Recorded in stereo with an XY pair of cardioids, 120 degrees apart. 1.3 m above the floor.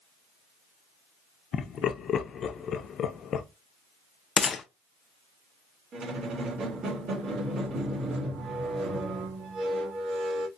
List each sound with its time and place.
1.5 s laughter: 45° left, 0.6 m
4.4 s a gunshot: 40° left, 0.6 m
5.9 s a squeak: 50° right, 1.4 m